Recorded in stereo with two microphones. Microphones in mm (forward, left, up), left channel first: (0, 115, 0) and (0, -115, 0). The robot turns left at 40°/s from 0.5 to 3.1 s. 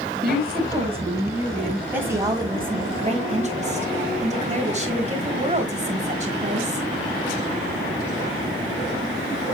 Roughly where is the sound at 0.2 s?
Behind right.